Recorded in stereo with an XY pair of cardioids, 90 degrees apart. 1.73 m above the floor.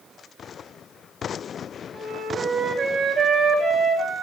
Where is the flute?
60° right, 6.5 m.